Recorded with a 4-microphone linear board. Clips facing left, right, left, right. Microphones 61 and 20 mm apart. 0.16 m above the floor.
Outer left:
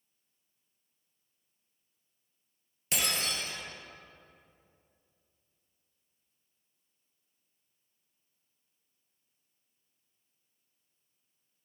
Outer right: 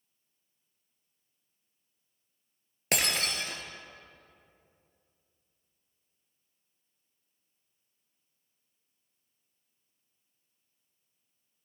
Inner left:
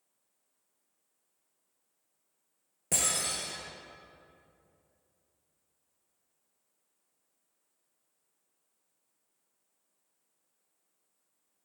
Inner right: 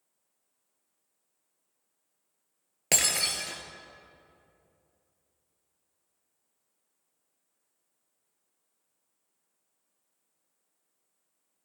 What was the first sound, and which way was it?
Breaking glass, 65° right (ahead or behind).